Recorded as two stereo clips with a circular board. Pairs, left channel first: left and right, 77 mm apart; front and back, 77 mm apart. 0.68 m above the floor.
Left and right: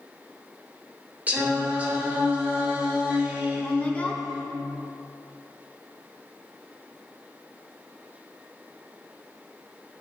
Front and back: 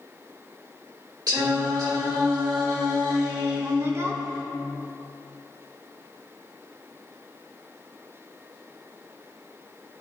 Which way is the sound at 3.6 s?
150° left.